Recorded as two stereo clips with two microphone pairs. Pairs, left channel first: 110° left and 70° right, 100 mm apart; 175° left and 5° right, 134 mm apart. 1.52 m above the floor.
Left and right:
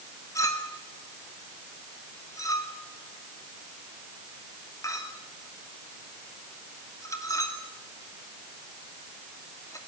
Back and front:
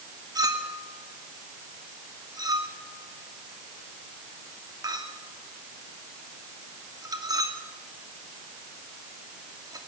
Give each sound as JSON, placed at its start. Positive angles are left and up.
{"t": 0.3, "sound": "a clink", "azimuth_deg": 55, "distance_m": 2.5}